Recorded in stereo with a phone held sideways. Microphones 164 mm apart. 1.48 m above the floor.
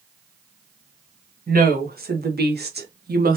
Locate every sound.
1.5 s a woman speaking: 60° right (ahead or behind), 1.2 m